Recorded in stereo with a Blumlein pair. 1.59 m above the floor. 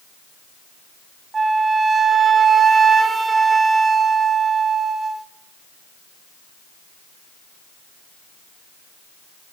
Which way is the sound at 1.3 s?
15° right.